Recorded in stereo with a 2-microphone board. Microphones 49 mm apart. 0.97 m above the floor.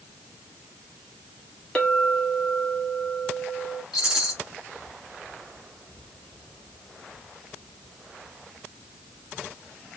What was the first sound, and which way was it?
A clink, 15° left (ahead or behind).